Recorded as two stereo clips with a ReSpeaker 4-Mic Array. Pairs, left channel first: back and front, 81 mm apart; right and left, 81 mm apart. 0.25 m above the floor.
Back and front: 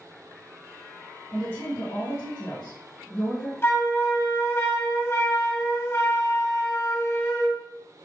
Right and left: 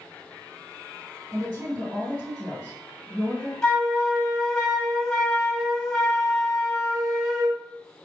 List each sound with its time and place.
1.3 s a woman speaking: 145° left, 2.5 m
3.6 s a flute: 165° right, 1.7 m